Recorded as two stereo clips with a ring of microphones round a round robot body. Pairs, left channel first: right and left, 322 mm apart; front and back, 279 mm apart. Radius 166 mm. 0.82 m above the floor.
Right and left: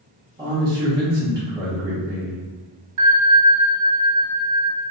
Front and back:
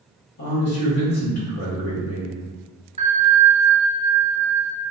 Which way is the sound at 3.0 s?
110° left.